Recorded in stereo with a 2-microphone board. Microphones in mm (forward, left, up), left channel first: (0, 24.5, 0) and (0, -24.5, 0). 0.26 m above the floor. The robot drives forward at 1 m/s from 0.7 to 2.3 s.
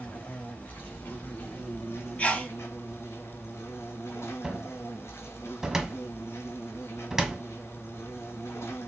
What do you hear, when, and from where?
0.0 s an insect: 40° left (ahead or behind), 4 m; by 8.9 s 60° left (ahead or behind), 3 m
2.2 s a sneeze: 30° left (ahead or behind), 2.5 m
4.4 s a cupboard door: 10° right (ahead or behind), 1.5 m